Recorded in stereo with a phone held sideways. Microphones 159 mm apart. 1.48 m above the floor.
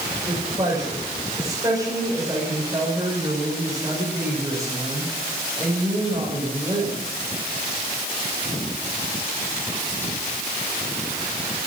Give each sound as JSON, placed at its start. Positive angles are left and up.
{"t": 0.3, "sound": "a woman speaking", "side_deg": -30, "distance_m": 6.5}